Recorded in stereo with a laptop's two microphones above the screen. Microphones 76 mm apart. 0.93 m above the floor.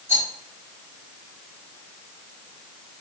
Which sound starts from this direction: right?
A rattle, at 0.1 s.